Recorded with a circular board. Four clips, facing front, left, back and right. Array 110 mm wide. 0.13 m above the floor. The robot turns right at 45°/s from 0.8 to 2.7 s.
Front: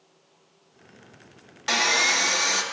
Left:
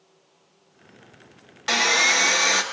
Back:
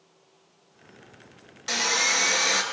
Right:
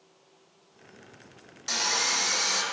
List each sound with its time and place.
1.7 s sawing: 60° left, 0.6 m; by 2.6 s 100° left, 0.6 m